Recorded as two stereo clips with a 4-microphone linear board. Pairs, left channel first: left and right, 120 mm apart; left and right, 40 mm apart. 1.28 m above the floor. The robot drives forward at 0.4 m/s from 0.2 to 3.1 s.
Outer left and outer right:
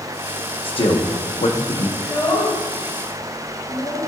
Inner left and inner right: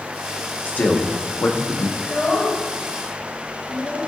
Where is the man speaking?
50° left (ahead or behind), 1.2 m; by 1.9 s 70° left (ahead or behind), 0.9 m.